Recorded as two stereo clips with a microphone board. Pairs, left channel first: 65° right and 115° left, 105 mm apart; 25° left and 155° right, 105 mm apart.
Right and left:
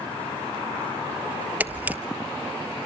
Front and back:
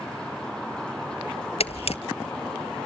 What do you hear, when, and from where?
1.6 s a camera shutter: 35° left, 1.0 m